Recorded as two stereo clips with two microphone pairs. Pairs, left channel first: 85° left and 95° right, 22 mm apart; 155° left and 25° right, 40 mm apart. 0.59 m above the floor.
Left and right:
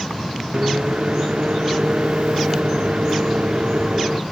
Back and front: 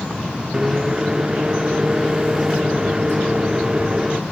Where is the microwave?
100° right, 0.8 m.